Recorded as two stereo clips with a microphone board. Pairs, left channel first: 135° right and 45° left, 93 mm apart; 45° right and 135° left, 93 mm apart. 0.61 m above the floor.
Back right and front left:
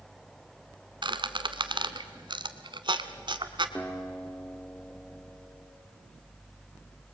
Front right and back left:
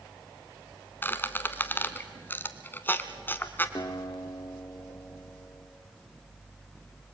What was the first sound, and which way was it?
A squeak, 20° left.